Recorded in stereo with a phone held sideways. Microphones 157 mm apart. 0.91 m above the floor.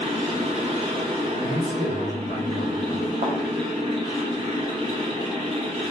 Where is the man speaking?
55° right (ahead or behind), 1.8 m.